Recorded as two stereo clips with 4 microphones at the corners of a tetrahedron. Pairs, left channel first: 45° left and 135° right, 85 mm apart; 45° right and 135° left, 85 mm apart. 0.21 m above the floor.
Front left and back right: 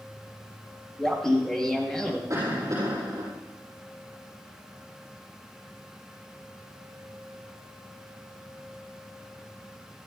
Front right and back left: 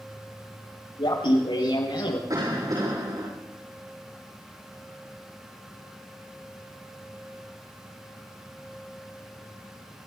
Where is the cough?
170° left, 7.5 m.